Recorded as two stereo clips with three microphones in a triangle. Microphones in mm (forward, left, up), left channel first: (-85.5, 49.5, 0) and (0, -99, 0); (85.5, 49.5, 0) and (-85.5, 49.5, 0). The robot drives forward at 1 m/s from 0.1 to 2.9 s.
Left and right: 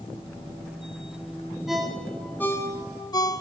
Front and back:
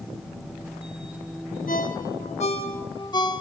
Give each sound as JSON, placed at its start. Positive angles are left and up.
{"t": 1.7, "sound": "a ringtone", "azimuth_deg": 30, "distance_m": 2.0}